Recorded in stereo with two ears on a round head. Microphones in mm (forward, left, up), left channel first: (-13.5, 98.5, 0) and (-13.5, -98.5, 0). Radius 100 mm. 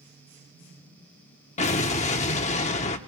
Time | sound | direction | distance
1.6 | an explosion | 30° left (ahead or behind) | 0.9 m